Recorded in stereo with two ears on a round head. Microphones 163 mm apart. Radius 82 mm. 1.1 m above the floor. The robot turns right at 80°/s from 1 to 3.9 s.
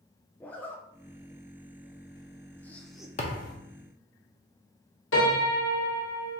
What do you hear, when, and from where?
0.4 s a zipper: 10° left (ahead or behind), 0.5 m; by 3.1 s 5° right (ahead or behind), 0.5 m
3.2 s a thud: 35° left (ahead or behind), 0.7 m; by 3.5 s 55° left (ahead or behind), 0.7 m
5.1 s a piano: 80° left, 1.4 m